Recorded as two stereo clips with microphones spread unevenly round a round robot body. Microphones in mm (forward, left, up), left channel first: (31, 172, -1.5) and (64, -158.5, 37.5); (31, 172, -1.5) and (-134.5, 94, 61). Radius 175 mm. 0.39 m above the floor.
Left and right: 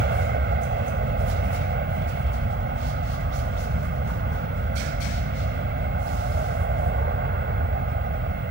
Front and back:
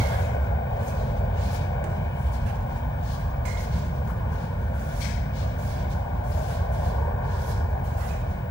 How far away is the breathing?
No breathing in this recording.